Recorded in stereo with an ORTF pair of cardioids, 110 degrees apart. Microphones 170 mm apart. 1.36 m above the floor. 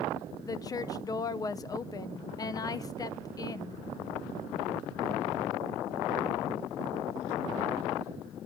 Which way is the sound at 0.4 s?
25° left.